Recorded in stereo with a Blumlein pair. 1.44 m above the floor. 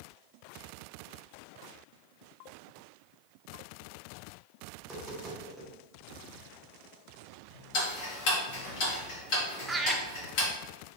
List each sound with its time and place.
4.8 s tapping: straight ahead, 1.5 m
7.7 s ticking: 45° left, 1.6 m
9.7 s laughter: 10° right, 0.7 m